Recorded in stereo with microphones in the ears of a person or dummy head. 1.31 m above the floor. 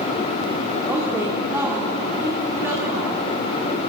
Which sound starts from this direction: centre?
A woman speaking, at 0.9 s.